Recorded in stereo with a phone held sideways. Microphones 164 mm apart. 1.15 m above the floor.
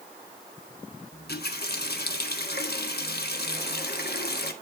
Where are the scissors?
No scissors in this recording.